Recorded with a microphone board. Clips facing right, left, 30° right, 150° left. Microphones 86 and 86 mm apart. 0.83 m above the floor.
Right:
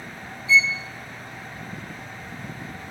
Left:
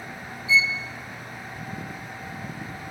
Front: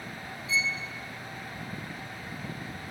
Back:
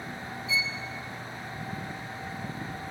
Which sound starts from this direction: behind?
A violin, at 0.5 s.